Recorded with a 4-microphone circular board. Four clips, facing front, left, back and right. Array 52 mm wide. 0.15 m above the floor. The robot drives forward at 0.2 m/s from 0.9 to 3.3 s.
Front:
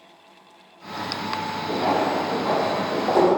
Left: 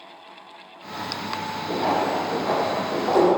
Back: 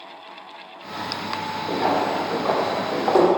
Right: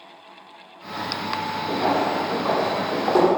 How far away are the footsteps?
About 1.7 m.